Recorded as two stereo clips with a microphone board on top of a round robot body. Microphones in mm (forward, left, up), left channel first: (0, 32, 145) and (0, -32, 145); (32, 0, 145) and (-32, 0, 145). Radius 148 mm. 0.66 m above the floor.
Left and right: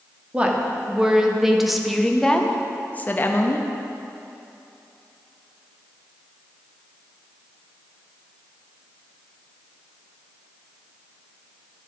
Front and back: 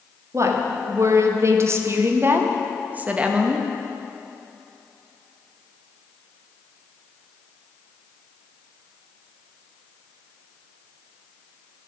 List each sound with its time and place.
0.3 s a woman speaking: 155° right, 2 m; by 3.6 s 105° left, 1.4 m